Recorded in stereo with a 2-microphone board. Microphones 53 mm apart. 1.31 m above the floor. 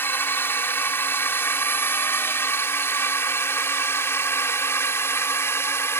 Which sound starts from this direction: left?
A drone, at 0.0 s.